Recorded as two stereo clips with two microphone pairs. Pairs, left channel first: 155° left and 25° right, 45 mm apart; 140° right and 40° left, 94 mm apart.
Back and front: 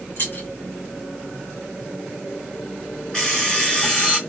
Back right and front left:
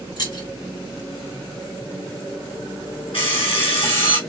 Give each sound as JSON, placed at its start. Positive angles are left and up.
{"t": 0.2, "sound": "keys jangling", "azimuth_deg": -175, "distance_m": 2.0}
{"t": 3.1, "sound": "an alarm clock", "azimuth_deg": -135, "distance_m": 1.8}